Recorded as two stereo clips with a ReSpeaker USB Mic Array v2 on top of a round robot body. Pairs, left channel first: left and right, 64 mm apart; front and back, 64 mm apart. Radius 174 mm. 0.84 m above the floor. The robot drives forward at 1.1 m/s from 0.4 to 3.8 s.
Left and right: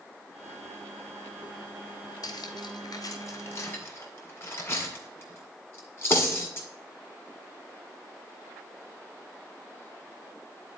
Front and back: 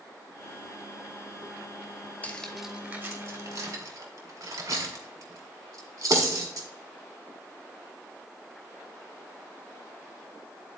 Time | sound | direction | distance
2.2 | cutlery clinking | 65° left | 0.9 m